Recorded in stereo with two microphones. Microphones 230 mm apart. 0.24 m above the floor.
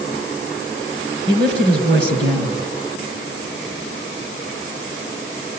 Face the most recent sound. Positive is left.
turn(degrees=-55)  # may be behind; listen again after turning